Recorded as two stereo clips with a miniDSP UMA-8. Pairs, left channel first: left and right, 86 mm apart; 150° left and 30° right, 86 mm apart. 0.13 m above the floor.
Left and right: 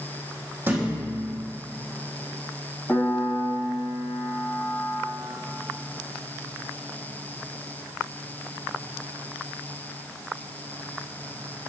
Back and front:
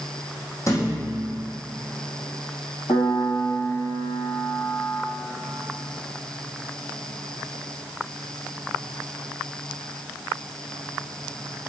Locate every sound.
0.7 s a thud: 155° right, 3 m
2.9 s a piano: 165° left, 2 m